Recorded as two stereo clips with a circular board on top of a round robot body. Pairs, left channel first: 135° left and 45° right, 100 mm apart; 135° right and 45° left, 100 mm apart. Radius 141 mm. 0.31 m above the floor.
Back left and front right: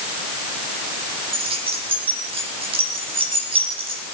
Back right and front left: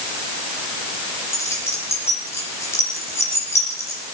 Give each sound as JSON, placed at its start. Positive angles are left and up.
{"t": 1.3, "sound": "keys jangling", "azimuth_deg": -70, "distance_m": 10.0}